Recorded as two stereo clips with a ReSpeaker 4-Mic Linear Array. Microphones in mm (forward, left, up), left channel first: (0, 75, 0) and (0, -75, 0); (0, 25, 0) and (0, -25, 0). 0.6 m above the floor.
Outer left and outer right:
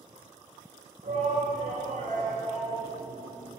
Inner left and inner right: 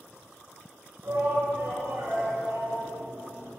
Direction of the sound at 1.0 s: 60° right (ahead or behind).